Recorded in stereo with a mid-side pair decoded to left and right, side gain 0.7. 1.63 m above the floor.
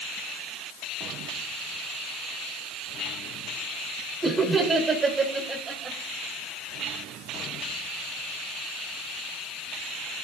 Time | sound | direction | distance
4.2 | laughter | 20° right | 5 m